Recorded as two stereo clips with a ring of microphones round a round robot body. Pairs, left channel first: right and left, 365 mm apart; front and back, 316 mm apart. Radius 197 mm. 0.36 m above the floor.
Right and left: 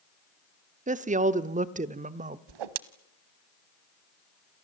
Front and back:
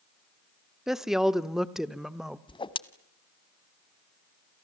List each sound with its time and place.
0.9 s a woman speaking: 95° left, 1.0 m
2.5 s a whoosh: 75° left, 1.2 m